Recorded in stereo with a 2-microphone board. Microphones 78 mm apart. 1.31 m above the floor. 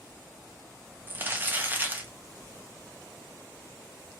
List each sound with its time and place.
1.1 s crumpling: 25° right (ahead or behind), 1.2 m